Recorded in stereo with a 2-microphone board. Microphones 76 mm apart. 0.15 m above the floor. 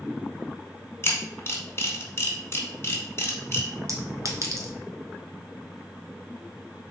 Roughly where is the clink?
Right.